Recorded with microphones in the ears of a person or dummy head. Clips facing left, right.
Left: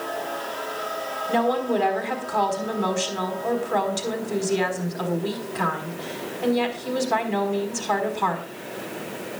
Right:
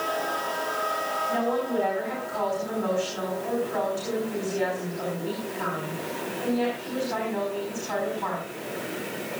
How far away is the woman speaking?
About 4.5 m.